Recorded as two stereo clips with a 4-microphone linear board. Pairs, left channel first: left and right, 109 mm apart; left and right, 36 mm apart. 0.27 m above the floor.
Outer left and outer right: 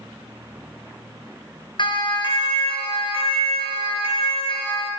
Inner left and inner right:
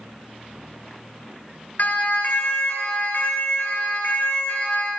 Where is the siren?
50° left (ahead or behind), 5 m; by 4.9 s 60° left (ahead or behind), 7.5 m.